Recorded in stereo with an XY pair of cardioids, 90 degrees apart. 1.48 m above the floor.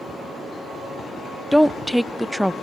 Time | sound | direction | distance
1.5 | a woman speaking | straight ahead | 0.5 m